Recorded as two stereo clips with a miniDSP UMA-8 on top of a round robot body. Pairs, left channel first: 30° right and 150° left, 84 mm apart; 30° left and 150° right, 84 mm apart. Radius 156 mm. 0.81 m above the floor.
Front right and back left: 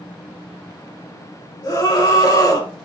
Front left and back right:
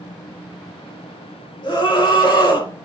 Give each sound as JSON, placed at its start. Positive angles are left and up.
{"t": 1.6, "sound": "a scream", "azimuth_deg": 5, "distance_m": 4.0}